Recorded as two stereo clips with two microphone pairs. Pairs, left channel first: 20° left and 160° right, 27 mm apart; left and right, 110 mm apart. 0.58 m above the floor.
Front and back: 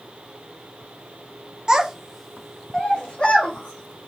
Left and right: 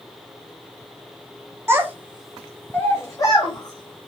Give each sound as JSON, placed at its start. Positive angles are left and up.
{"t": 1.7, "sound": "a child speaking", "azimuth_deg": -130, "distance_m": 0.6}